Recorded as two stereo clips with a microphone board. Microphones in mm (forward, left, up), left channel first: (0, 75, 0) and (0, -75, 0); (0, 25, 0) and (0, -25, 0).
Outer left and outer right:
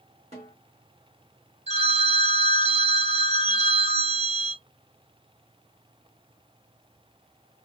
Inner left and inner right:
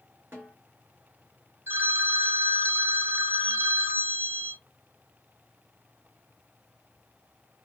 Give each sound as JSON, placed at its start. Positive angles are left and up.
{"t": 0.3, "sound": "a snare drum", "side_deg": -45, "distance_m": 2.0}
{"t": 1.7, "sound": "a phone ringing", "side_deg": -45, "distance_m": 1.0}